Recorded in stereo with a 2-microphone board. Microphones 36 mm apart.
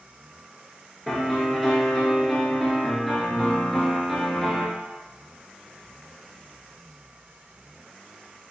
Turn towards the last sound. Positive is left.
turn(degrees=5)  # may be behind; listen again after turning